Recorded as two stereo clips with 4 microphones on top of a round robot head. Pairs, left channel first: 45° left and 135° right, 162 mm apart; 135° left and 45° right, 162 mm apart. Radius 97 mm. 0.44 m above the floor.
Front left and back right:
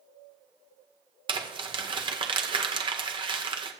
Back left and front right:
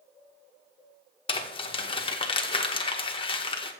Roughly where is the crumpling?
Behind.